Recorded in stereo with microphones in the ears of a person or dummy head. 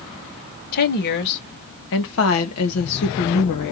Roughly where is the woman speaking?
Left.